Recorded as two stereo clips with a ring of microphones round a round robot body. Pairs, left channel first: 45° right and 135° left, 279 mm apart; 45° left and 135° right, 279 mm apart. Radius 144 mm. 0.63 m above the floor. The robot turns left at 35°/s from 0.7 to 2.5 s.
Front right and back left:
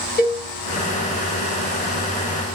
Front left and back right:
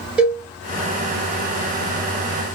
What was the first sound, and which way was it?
A cowbell, 50° right.